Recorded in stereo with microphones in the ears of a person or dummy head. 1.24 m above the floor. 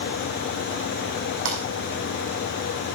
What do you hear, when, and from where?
1.4 s breaking glass: 75° right (ahead or behind), 6 m